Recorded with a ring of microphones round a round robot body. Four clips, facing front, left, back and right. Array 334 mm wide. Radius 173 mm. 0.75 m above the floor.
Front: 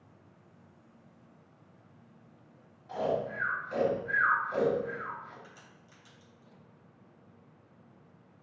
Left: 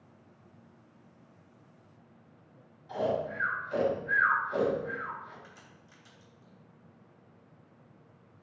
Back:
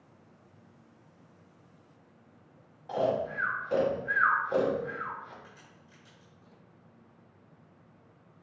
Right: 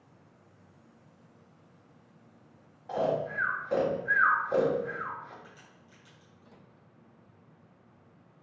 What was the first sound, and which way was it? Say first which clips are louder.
Snoring: right 2 dB, back 3 dB; 135° right.